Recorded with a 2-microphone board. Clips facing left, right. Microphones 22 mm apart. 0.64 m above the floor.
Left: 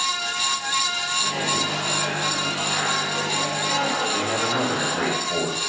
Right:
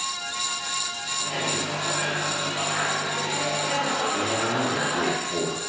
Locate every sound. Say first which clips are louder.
1.2 s a microwave: left 2 dB; 20° left (ahead or behind), 4.5 m
4.1 s a man speaking: left 2 dB; 75° left (ahead or behind), 3 m